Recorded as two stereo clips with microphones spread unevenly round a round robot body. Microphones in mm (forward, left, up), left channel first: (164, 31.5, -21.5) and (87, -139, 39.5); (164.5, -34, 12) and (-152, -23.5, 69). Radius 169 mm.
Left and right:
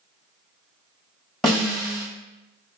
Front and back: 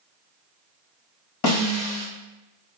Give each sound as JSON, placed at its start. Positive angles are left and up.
{"t": 1.4, "sound": "a snare drum", "azimuth_deg": -25, "distance_m": 1.4}